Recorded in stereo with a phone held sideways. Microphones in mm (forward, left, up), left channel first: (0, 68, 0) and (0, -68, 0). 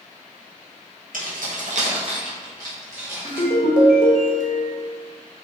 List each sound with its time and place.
1.1 s keys jangling: 80° right, 0.6 m; by 3.5 s 15° right (ahead or behind), 1.5 m
3.2 s a ringtone: 65° left (ahead or behind), 0.6 m